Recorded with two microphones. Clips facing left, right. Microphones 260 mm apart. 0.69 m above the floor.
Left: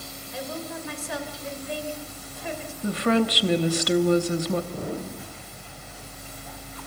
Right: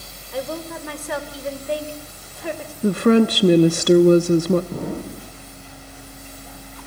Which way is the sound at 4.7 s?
80° right.